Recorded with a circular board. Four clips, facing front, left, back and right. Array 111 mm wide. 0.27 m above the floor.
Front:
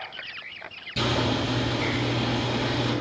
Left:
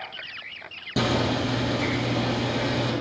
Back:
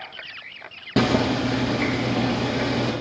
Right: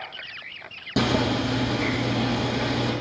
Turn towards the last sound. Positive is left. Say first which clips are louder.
# right 1 dB, back 5 dB
turn(degrees=-170)